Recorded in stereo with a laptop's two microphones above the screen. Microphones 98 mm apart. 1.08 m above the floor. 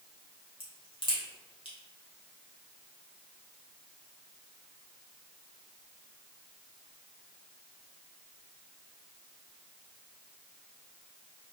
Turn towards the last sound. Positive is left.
turn(degrees=70)  # may be behind; listen again after turning